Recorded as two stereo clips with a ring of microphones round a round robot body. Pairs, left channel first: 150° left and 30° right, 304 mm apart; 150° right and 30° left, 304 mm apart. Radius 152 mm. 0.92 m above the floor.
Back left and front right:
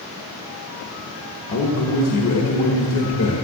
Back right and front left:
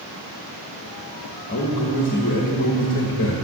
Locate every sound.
1.5 s a man speaking: 165° left, 1.3 m